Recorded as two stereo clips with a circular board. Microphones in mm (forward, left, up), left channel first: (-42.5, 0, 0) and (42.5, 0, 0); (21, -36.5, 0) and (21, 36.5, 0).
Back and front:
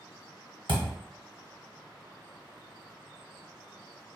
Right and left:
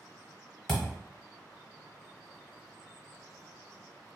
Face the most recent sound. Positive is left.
turn(degrees=-5)